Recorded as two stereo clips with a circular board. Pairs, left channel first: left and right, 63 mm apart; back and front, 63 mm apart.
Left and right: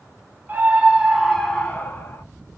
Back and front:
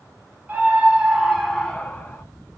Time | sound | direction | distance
0.5 | a scream | 50° right | 1.3 m